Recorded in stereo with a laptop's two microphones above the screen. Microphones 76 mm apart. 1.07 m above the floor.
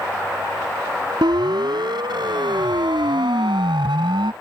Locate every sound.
1.2 s a siren: 70° right (ahead or behind); by 4.3 s 85° right